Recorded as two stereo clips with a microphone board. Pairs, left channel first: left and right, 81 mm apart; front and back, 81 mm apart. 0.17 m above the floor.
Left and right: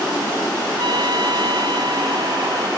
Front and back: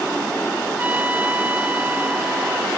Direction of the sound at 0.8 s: 110° right.